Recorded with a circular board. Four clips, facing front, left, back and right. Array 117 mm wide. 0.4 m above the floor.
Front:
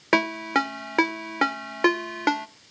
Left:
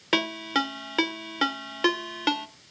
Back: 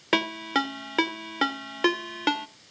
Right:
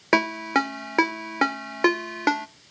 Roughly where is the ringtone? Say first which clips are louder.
Right 5 dB, front 3 dB; ahead right.